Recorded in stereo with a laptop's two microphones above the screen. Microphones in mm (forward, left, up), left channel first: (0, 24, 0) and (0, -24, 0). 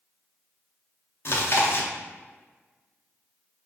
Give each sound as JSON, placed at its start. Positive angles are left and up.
{"t": 1.2, "sound": "chewing", "side_deg": 55, "distance_m": 0.6}